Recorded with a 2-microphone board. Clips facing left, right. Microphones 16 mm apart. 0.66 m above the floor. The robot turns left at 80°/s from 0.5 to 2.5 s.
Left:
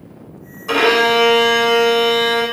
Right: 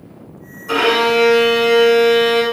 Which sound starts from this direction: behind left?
A violin, at 0.7 s.